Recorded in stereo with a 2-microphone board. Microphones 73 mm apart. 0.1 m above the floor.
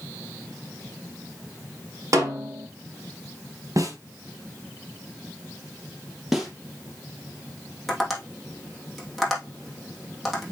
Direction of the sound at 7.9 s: Centre (ahead or behind).